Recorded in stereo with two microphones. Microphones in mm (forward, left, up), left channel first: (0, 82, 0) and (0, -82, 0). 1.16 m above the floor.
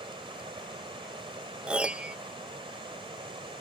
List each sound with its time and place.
0.0 s running water: 30° right (ahead or behind)
1.7 s a piano: 5° right (ahead or behind)